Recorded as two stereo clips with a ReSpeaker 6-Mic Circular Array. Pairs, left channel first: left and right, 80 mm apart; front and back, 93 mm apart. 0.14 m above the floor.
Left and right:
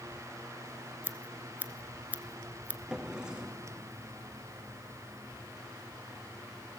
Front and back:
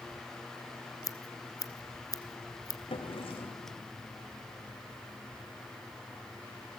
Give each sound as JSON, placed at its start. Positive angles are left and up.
{"t": 1.0, "sound": "scissors", "azimuth_deg": -30, "distance_m": 1.2}
{"t": 2.9, "sound": "a drawer", "azimuth_deg": -10, "distance_m": 3.5}